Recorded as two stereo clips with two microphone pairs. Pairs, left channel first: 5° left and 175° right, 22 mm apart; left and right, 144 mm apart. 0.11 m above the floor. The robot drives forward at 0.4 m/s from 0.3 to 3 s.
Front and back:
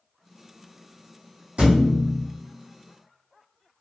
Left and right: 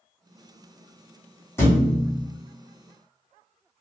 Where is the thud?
160° left, 1.8 m; by 2.2 s 165° left, 2.0 m.